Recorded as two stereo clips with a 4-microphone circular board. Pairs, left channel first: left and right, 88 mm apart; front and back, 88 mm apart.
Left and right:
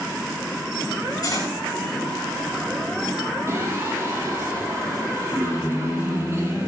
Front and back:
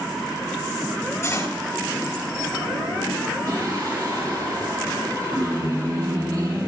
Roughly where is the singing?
Behind right.